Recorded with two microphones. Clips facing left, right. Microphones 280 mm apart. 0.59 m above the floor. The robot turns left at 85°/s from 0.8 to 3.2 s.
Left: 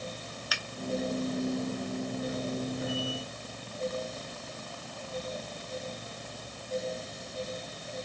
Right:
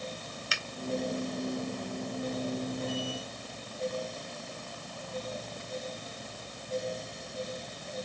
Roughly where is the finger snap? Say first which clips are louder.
Even; right.